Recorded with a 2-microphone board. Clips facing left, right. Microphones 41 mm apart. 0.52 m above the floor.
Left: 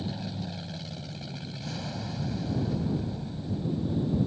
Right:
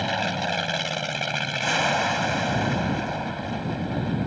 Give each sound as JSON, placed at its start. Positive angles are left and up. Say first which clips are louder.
{"t": 0.0, "sound": "an aircraft", "louder": "right 11 dB", "side_deg": -65}